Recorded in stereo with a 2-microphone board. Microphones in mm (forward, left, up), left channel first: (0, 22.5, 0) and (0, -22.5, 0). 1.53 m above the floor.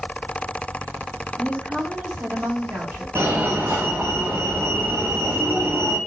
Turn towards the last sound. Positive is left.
turn(degrees=-60)  # may be behind; listen again after turning